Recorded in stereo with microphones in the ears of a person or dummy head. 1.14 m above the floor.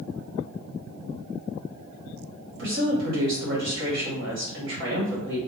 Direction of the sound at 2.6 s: 65° right (ahead or behind).